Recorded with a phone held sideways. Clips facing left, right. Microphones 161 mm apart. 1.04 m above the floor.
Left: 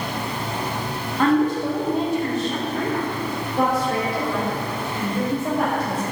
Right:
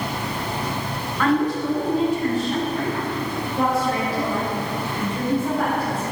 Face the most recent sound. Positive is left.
turn(degrees=85)